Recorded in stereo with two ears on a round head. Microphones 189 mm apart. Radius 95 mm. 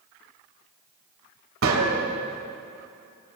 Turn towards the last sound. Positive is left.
turn(degrees=-70)  # may be behind; listen again after turning